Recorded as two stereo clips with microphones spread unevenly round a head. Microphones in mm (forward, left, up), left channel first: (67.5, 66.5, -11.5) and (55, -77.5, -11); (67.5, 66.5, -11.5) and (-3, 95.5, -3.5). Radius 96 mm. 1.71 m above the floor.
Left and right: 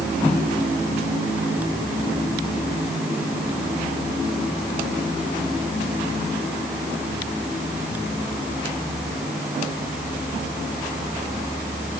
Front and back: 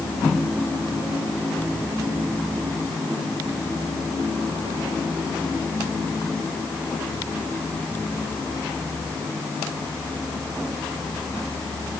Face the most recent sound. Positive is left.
No sound to turn to.